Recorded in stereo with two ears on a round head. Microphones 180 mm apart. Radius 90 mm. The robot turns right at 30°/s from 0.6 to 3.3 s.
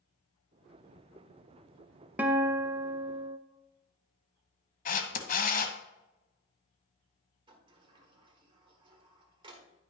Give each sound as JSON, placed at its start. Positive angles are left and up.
{"t": 2.2, "sound": "a guitar", "azimuth_deg": -165, "distance_m": 0.6}
{"t": 4.8, "sound": "a camera shutter", "side_deg": 45, "distance_m": 0.9}
{"t": 7.5, "sound": "a sliding door", "side_deg": -25, "distance_m": 1.3}